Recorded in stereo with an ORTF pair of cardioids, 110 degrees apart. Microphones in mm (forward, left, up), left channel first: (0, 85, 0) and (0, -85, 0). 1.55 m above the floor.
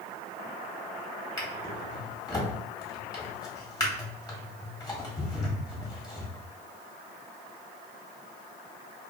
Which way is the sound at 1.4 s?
20° left.